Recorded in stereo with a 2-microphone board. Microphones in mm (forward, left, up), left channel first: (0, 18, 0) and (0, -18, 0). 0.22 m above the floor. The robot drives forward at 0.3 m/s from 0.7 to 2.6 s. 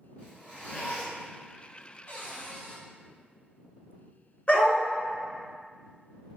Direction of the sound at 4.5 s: 35° left (ahead or behind).